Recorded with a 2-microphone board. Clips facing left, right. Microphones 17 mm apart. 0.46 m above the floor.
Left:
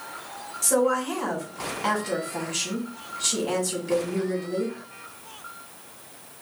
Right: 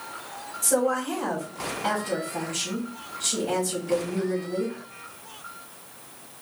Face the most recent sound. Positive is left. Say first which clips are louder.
# left 1 dB
turn(degrees=45)  # may be behind; listen again after turning